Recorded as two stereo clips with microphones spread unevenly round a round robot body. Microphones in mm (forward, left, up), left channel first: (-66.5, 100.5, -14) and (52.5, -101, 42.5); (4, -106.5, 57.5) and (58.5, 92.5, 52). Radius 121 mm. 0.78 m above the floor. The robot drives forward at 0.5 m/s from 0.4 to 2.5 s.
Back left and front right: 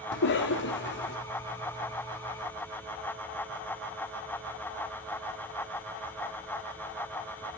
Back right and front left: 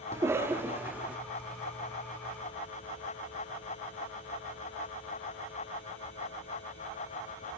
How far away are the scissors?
I don't hear scissors.